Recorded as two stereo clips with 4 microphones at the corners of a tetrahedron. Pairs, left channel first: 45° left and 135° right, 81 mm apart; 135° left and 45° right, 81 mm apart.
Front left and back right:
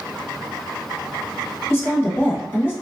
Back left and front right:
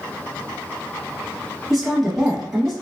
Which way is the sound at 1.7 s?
45° left.